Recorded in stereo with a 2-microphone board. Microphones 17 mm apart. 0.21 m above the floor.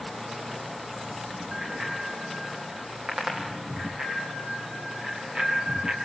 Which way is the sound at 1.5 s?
75° right (ahead or behind).